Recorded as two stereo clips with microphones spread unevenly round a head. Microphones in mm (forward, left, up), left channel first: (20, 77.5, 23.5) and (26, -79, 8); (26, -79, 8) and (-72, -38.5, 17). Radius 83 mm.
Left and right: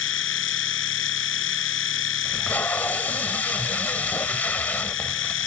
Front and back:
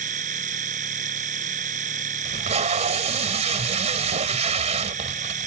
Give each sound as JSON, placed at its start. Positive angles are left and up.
{"t": 0.0, "sound": "a machine running", "azimuth_deg": 110}
{"t": 2.2, "sound": "tape being pulled", "azimuth_deg": 170}